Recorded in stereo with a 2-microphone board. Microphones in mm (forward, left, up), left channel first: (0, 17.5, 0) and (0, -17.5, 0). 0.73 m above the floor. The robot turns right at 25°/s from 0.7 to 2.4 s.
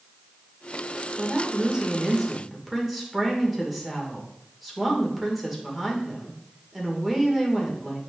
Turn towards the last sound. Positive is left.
turn(degrees=-5)